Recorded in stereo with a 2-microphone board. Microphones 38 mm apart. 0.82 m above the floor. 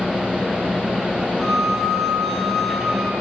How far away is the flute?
About 8 m.